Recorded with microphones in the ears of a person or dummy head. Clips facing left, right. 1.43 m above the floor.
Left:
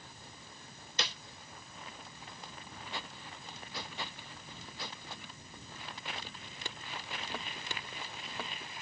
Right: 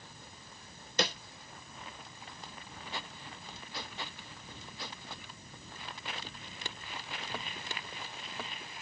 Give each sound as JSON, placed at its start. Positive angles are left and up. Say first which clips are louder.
{"t": 1.0, "sound": "a snare drum", "louder": "right 8 dB", "side_deg": -45}